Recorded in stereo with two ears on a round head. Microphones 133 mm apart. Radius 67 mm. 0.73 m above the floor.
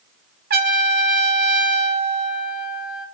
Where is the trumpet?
75° right (ahead or behind), 1.7 m.